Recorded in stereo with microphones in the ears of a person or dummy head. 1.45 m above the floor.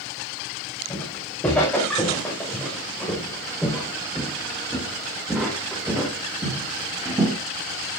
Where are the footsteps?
15° left (ahead or behind), 8 m; by 7.4 s 10° right (ahead or behind), 4 m.